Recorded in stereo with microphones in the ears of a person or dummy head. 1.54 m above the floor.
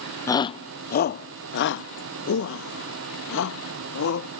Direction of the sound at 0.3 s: 15° left (ahead or behind).